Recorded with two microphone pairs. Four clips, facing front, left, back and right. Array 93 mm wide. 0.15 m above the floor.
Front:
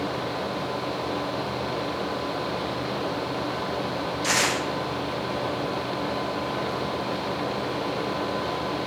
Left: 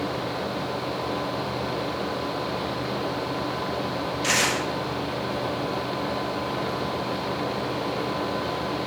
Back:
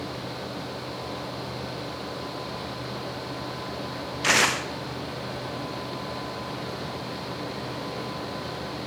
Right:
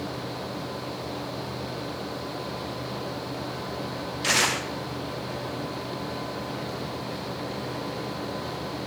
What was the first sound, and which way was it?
Tearing paper, 165° right.